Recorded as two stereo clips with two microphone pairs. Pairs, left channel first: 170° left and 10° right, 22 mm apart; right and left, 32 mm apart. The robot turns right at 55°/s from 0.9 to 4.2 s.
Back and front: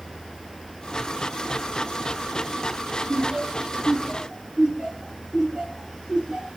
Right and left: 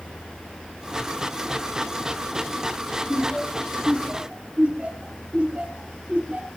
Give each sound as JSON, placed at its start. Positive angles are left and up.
{"t": 3.1, "sound": "laughter", "azimuth_deg": -10, "distance_m": 7.5}